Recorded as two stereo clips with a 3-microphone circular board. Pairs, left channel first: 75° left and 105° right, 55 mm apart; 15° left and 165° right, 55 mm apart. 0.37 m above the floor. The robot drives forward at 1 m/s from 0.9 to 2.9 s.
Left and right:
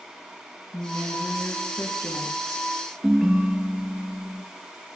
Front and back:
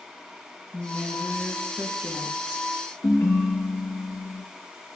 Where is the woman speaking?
100° left, 6.5 m; by 2.7 s 115° left, 7 m.